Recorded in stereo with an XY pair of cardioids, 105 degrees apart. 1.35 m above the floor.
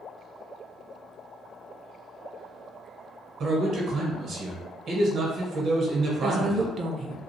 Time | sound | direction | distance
3.4 | a man speaking | 55° right | 1.1 m
6.2 | a woman speaking | 50° right | 0.5 m